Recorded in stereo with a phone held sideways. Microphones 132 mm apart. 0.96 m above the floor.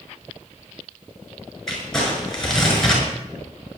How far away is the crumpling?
About 6 m.